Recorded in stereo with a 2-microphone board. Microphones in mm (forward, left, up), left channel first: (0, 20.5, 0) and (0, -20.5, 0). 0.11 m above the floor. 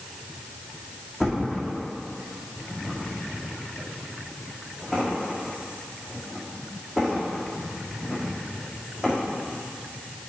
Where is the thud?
5° right (ahead or behind), 2.5 m.